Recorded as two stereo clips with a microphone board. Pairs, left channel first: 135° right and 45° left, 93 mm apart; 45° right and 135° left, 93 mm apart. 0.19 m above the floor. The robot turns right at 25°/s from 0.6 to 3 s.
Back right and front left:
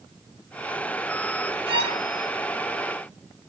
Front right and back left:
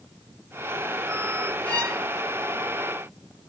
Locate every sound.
1.7 s a violin: 25° left, 0.8 m; by 2.0 s 35° left, 0.8 m